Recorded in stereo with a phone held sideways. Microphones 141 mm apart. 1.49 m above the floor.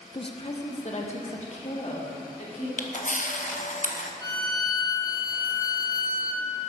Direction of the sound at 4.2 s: 25° left (ahead or behind).